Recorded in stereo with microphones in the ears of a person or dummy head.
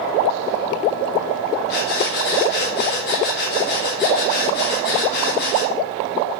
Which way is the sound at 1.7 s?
55° left (ahead or behind).